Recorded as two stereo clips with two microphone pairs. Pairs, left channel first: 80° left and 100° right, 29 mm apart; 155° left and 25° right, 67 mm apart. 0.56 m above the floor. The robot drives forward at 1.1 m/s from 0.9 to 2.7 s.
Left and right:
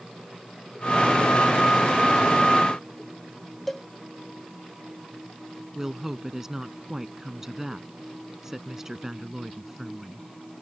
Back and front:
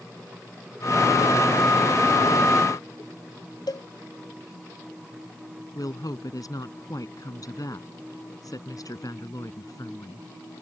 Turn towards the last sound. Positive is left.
turn(degrees=-175)